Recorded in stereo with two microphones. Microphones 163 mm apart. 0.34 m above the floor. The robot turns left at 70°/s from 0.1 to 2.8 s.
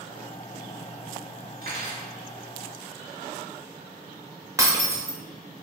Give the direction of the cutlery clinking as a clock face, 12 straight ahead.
3 o'clock.